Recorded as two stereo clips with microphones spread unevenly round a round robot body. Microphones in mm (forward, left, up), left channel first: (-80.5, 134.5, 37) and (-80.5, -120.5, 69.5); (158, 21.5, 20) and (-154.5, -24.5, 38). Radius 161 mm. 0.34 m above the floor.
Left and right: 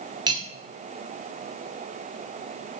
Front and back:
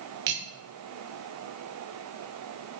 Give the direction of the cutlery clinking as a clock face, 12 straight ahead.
5 o'clock.